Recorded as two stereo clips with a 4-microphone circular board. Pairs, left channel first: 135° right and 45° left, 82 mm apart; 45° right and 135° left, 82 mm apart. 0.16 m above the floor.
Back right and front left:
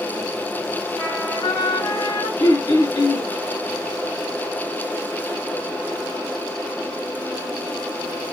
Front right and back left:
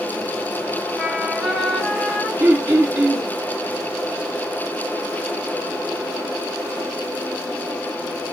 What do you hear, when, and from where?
1.0 s a trumpet: 140° right, 3.5 m
2.4 s throat clearing: 165° right, 1.9 m